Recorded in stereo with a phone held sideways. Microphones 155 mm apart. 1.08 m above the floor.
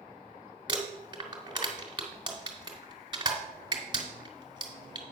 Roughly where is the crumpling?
Right.